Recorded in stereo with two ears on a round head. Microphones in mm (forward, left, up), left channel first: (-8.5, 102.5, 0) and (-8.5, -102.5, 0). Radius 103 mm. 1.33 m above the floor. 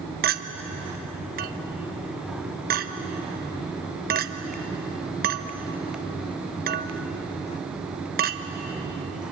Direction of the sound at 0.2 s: 40° right (ahead or behind).